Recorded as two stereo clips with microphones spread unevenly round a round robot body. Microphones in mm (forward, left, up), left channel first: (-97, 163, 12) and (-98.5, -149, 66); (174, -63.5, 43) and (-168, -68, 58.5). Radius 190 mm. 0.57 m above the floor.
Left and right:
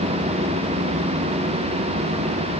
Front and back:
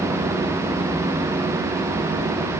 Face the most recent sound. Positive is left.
No sound to turn to.